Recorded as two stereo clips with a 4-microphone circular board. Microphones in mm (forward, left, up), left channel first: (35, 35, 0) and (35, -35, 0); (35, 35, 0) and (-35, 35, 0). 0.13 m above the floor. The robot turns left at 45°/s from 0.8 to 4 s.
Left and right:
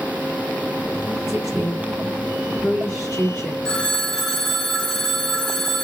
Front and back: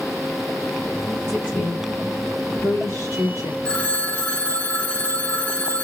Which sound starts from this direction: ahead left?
A phone ringing, at 3.6 s.